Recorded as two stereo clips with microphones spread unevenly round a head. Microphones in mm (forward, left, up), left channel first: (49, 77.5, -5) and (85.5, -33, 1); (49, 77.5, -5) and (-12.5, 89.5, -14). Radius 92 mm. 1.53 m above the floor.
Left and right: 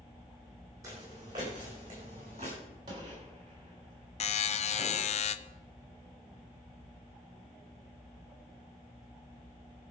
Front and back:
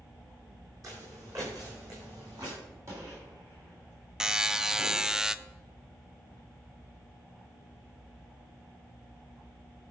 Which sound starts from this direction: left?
A buzzer, at 4.2 s.